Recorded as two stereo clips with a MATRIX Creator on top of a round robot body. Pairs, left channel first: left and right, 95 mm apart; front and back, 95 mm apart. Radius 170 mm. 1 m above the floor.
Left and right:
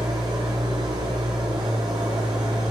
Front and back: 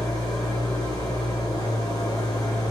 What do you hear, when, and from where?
0.0 s an engine running: 50° right, 1.3 m